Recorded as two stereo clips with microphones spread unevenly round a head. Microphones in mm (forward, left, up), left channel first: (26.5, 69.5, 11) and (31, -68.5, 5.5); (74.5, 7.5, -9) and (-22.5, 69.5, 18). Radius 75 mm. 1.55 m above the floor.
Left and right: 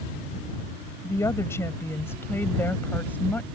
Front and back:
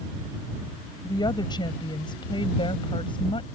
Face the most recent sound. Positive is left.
turn(degrees=15)